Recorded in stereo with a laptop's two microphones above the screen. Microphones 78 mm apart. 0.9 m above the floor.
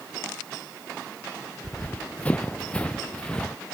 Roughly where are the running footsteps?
Centre.